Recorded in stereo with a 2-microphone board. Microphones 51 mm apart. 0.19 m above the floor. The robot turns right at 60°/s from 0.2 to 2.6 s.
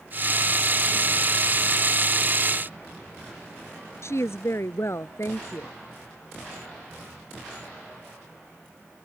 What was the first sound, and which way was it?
A woman speaking, 60° left (ahead or behind).